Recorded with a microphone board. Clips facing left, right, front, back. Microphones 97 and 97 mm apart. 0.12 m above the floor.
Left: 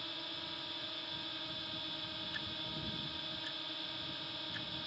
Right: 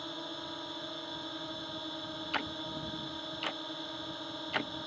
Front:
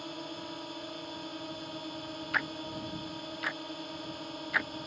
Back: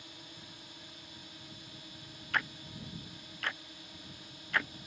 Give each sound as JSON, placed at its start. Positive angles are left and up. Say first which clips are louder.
{"t": 0.0, "sound": "a drone", "louder": "right 7 dB, front 13 dB", "azimuth_deg": -30}
{"t": 2.3, "sound": "ticking", "louder": "right 11 dB, front 1 dB", "azimuth_deg": -85}